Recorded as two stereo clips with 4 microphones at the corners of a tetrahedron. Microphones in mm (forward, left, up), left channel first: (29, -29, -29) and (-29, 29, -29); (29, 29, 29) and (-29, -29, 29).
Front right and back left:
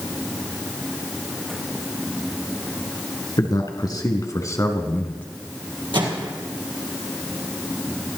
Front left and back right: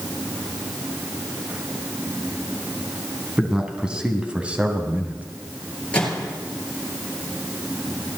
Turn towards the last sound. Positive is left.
turn(degrees=120)